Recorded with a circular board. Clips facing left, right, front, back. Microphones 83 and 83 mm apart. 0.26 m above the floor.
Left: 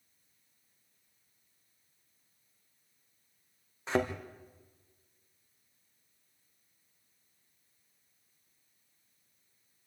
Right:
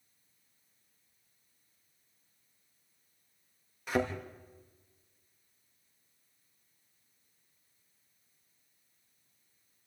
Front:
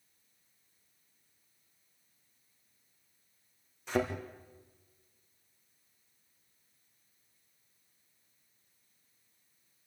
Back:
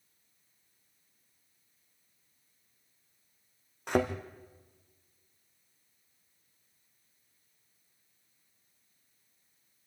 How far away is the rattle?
I don't hear a rattle.